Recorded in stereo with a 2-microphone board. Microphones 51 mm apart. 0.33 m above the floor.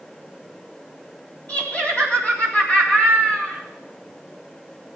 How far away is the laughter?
About 2 m.